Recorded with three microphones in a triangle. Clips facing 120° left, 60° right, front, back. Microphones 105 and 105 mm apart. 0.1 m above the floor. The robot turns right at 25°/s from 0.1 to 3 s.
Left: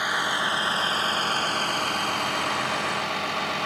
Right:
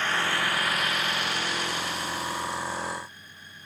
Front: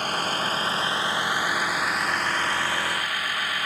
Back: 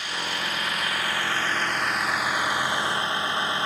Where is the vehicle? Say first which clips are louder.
Left 1 dB, front 5 dB; 45° left; by 3.7 s 115° left.